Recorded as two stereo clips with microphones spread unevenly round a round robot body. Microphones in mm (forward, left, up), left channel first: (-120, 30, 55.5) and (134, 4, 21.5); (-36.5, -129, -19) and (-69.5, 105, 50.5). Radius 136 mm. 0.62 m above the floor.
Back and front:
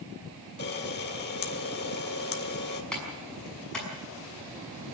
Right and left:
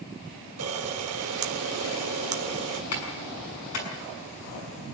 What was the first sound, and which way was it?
A camera shutter, 125° left.